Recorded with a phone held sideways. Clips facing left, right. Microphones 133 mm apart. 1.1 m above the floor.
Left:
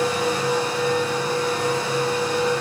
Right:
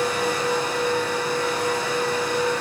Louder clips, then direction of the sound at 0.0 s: Left 1 dB; 35° left (ahead or behind).